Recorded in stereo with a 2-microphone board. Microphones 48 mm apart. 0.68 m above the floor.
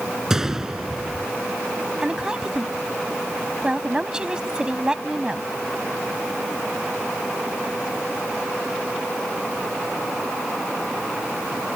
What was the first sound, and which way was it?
A gunshot, 10° right (ahead or behind).